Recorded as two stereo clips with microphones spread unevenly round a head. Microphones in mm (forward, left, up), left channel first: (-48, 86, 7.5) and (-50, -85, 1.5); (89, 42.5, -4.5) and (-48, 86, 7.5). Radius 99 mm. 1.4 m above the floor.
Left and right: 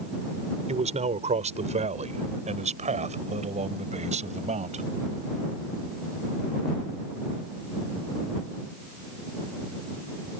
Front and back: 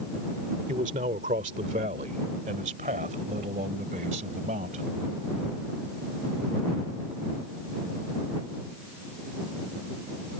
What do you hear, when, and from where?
0.7 s a man speaking: 140° right